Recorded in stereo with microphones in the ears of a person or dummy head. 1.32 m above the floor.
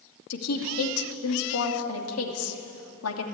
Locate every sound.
0.3 s a woman speaking: 85° left, 2.5 m